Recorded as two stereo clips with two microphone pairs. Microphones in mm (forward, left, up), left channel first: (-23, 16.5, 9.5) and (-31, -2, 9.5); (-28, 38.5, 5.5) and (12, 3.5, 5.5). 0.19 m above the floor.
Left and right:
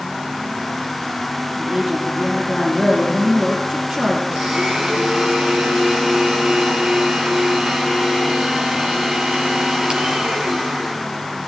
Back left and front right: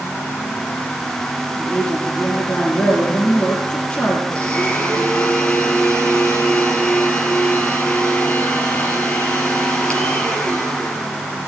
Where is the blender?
150° right, 4.5 m.